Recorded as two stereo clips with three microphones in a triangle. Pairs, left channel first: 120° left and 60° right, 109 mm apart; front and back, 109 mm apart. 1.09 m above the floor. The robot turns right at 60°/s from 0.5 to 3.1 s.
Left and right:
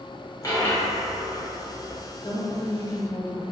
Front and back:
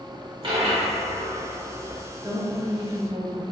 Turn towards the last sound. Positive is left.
turn(degrees=-175)